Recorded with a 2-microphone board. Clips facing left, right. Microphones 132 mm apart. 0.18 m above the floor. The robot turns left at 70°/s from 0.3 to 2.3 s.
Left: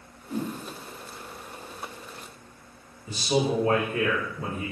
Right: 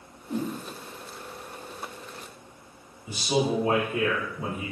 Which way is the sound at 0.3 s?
30° right (ahead or behind).